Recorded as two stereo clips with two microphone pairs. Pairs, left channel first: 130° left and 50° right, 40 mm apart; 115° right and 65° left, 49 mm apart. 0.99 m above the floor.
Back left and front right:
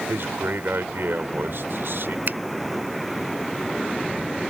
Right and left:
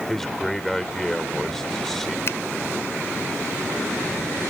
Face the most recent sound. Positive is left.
turn(degrees=-80)